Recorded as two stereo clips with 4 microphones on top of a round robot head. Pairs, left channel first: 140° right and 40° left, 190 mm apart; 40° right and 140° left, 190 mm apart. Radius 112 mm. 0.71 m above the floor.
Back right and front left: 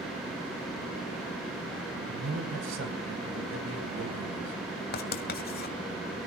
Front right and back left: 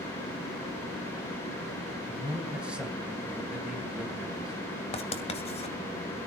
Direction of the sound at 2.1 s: 55° left.